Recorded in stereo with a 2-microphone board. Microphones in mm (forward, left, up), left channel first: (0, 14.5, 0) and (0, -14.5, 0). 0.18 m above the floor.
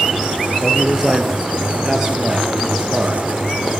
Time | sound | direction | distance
0.6 | a man speaking | 5° left (ahead or behind) | 4.5 m